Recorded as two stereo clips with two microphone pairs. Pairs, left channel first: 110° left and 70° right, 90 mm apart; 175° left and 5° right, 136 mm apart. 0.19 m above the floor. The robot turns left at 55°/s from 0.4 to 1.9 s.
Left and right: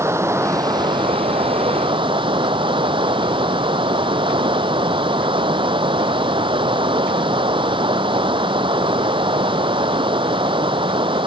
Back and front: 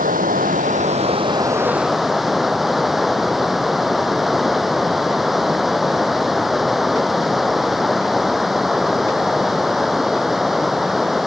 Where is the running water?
15° right; by 11.3 s 95° right.